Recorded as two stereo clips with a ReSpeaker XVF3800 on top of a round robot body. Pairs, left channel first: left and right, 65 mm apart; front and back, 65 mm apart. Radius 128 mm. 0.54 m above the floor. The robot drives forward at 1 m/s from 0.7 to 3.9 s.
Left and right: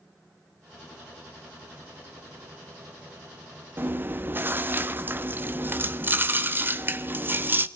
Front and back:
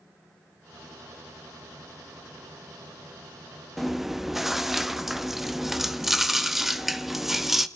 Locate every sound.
3.8 s chewing: 85° right, 1.2 m; by 7.7 s 95° right, 1.2 m